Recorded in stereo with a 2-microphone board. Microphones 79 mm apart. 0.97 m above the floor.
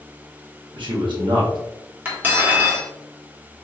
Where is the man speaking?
75° right (ahead or behind), 1.4 m.